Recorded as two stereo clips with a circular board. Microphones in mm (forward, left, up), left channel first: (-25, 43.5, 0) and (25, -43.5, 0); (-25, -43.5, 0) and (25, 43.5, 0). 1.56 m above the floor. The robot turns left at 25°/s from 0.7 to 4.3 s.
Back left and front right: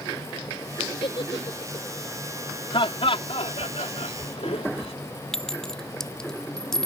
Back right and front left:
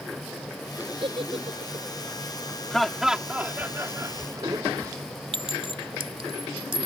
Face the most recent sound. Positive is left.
turn(degrees=35)